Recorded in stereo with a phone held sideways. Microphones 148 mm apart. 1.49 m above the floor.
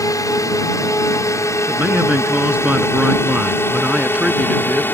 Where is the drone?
25° left (ahead or behind); by 5.0 s 15° left (ahead or behind).